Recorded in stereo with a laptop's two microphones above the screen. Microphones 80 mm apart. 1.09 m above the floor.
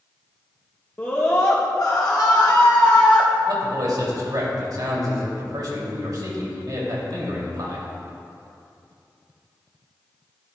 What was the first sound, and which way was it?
A scream, 25° left (ahead or behind).